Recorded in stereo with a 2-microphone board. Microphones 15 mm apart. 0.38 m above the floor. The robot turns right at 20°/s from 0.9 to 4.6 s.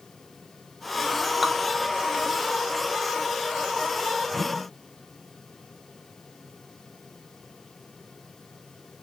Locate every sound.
1.4 s dripping: 10° right (ahead or behind), 0.5 m; by 1.5 s 15° right (ahead or behind), 0.5 m
4.3 s a whoosh: 10° left (ahead or behind), 0.7 m; by 4.7 s 15° left (ahead or behind), 0.7 m